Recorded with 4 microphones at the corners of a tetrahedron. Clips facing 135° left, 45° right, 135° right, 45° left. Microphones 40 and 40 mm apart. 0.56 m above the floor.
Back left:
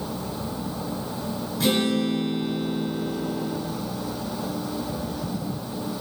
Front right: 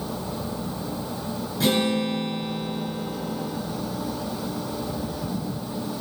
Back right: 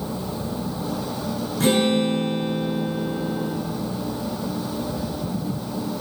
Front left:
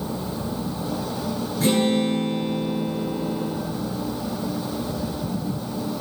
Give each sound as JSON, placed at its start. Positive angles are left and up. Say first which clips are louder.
{"t": 1.6, "sound": "a guitar", "louder": "even, back right 1 dB", "azimuth_deg": -130, "distance_m": 8.0}